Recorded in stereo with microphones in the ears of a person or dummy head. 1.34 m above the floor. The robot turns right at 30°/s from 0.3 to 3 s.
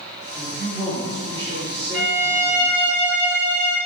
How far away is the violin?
About 1.6 m.